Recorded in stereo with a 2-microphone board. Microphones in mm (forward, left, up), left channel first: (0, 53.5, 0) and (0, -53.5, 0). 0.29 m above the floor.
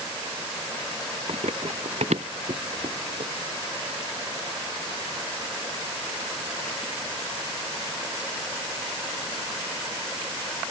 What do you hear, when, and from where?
1.3 s running footsteps: 90° right; by 3.3 s 85° right